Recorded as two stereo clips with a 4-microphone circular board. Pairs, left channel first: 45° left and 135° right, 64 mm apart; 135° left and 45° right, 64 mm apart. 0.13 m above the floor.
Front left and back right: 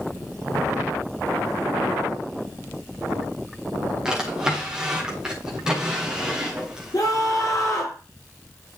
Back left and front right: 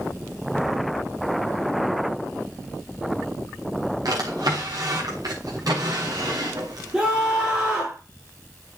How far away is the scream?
About 6.5 m.